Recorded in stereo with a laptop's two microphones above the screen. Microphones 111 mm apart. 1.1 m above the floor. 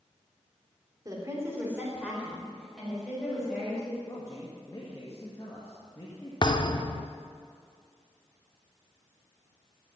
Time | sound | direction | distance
1.1 | a woman speaking | 35° right (ahead or behind) | 2.5 m
4.0 | a man speaking | 30° left (ahead or behind) | 1.9 m
6.4 | a thud | 45° left (ahead or behind) | 0.9 m